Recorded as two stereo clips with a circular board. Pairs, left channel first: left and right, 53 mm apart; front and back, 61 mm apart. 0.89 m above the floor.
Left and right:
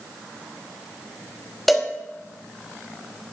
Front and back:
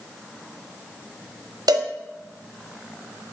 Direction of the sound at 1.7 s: Straight behind.